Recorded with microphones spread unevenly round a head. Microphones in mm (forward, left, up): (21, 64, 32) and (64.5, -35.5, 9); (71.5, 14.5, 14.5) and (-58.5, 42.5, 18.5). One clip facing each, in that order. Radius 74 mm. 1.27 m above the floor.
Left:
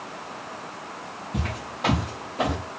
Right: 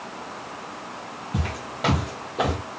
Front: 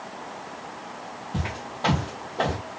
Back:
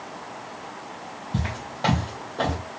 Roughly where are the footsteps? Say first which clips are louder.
Right 1 dB, back 2 dB; behind right.